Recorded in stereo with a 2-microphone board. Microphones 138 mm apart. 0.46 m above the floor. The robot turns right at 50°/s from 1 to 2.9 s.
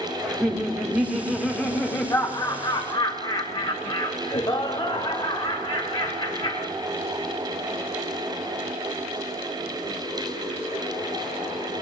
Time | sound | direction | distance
0.2 | laughter | 10° right | 0.8 m